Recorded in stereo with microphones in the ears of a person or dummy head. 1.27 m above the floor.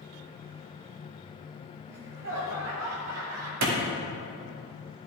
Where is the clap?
80° right, 2.5 m.